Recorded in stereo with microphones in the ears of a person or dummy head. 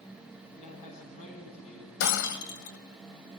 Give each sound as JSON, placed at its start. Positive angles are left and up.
{"t": 0.6, "sound": "a man speaking", "side_deg": 45, "distance_m": 10.0}
{"t": 2.0, "sound": "breaking glass", "side_deg": 65, "distance_m": 1.9}